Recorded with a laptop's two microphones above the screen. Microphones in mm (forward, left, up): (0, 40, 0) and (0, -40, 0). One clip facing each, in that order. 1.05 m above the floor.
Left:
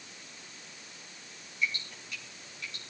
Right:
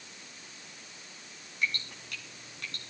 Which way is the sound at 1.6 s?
60° right (ahead or behind).